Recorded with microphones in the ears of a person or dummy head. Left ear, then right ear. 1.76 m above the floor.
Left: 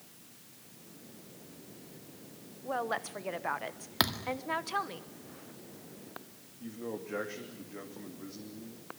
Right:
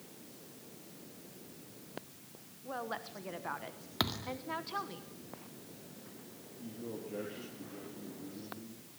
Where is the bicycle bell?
No bicycle bell in this recording.